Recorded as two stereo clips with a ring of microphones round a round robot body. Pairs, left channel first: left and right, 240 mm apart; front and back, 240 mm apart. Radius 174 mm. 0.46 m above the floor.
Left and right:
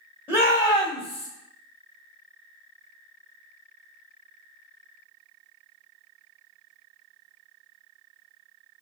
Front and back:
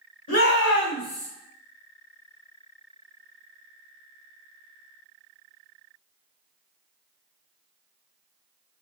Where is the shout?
10° left, 1.2 m; by 1.3 s 40° left, 1.0 m.